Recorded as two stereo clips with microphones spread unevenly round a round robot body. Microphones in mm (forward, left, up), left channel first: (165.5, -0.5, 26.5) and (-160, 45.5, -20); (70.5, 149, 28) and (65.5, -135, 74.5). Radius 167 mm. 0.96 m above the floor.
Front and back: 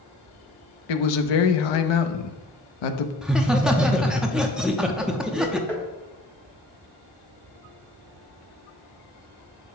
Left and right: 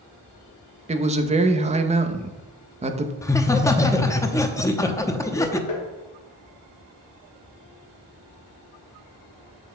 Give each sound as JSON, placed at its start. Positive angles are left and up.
{"t": 0.9, "sound": "a man speaking", "azimuth_deg": -20, "distance_m": 0.8}
{"t": 3.2, "sound": "laughter", "azimuth_deg": 110, "distance_m": 0.7}
{"t": 5.7, "sound": "tapping", "azimuth_deg": 75, "distance_m": 1.4}